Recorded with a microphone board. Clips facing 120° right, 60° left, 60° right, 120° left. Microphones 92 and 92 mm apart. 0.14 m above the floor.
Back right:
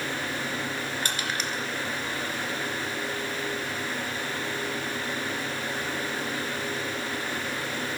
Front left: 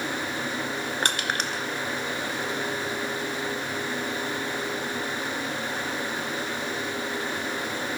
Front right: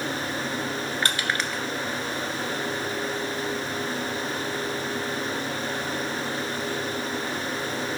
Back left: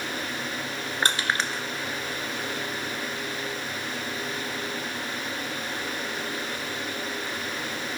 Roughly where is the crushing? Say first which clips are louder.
Front left 3 dB, back left 3 dB; ahead left.